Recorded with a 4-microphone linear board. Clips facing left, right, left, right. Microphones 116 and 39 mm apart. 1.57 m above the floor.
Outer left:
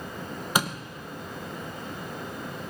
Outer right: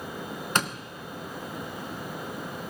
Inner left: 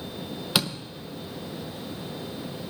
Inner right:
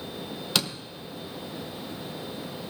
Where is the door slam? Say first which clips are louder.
Outer left 2 dB, inner left 2 dB; 10° left (ahead or behind), 0.7 m.